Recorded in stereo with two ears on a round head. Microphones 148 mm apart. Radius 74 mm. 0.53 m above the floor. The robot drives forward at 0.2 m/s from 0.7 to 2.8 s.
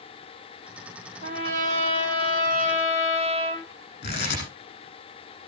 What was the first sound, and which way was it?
A trumpet, 50° right (ahead or behind).